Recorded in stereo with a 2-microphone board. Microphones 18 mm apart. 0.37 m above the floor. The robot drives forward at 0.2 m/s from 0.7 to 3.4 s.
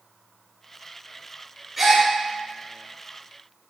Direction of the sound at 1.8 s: 10° right (ahead or behind).